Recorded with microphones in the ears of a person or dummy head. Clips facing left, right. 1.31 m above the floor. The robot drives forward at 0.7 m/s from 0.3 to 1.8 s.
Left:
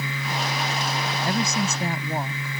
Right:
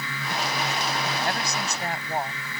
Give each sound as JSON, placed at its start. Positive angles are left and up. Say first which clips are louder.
{"t": 1.2, "sound": "a woman speaking", "louder": "left 4 dB", "side_deg": 85}